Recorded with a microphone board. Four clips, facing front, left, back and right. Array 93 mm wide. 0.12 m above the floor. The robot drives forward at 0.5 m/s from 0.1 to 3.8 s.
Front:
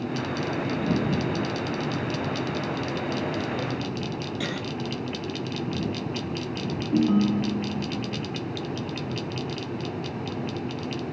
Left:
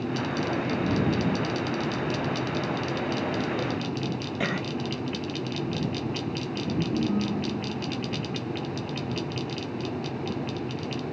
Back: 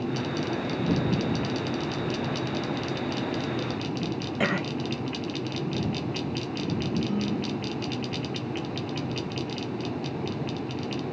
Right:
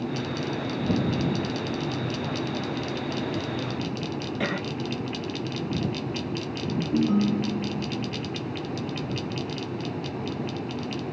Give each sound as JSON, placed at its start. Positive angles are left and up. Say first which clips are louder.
{"t": 4.4, "sound": "a cough", "louder": "even, back 8 dB", "azimuth_deg": 170, "distance_m": 1.3}
{"t": 6.9, "sound": "a ringtone", "louder": "right 7 dB, front 11 dB", "azimuth_deg": -20, "distance_m": 1.4}